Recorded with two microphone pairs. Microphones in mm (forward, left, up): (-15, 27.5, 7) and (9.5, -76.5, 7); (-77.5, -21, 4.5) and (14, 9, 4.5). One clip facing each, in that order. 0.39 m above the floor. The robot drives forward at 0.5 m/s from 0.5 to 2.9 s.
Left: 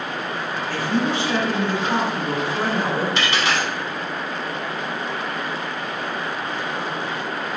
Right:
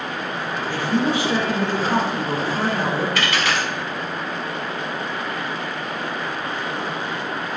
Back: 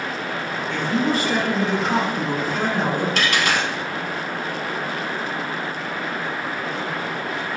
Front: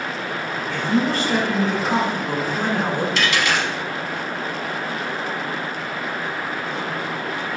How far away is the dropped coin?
About 0.6 m.